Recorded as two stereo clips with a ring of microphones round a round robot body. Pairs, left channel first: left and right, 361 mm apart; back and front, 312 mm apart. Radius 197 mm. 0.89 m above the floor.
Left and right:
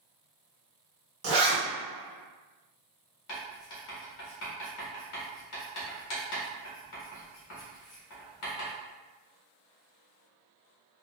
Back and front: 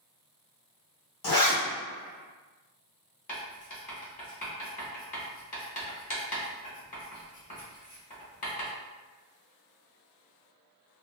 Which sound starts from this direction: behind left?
Writing, at 3.3 s.